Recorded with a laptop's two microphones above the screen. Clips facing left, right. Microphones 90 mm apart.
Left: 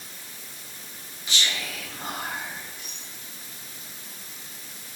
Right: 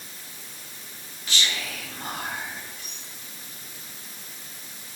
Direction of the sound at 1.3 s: 20° left (ahead or behind).